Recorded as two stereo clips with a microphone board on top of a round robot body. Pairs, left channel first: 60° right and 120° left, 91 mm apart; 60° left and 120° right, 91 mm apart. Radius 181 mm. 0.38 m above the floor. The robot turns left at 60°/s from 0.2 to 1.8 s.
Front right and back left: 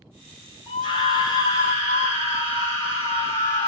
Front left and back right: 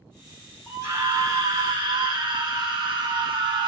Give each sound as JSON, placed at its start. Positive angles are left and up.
{"t": 0.7, "sound": "a scream", "azimuth_deg": -50, "distance_m": 2.0}